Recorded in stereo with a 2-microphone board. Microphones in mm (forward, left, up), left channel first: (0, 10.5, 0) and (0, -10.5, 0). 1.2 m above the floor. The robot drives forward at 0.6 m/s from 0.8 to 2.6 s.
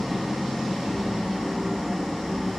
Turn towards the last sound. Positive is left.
turn(degrees=-20)  # may be behind; listen again after turning